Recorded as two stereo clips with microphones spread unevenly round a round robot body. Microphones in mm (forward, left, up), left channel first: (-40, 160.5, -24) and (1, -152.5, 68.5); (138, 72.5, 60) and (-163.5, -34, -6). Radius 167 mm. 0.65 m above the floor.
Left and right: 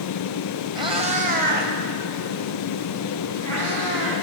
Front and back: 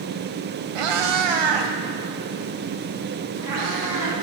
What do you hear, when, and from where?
0.8 s a cat meowing: 155° right, 1.0 m; by 4.1 s 125° right, 2.5 m